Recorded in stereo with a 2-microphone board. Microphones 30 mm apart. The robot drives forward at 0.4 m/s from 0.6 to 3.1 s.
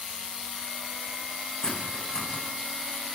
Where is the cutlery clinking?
25° left (ahead or behind), 9.5 m.